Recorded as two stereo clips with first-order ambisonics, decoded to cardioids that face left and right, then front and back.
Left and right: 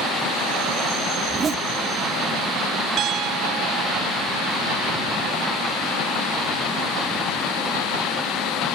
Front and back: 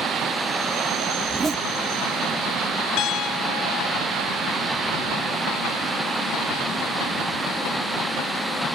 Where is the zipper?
120° right.